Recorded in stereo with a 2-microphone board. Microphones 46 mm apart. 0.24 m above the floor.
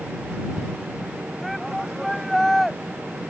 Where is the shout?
Centre (ahead or behind).